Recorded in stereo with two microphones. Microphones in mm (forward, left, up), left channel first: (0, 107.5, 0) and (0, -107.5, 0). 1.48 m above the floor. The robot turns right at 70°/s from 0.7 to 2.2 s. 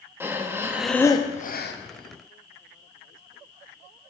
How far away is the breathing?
About 0.6 m.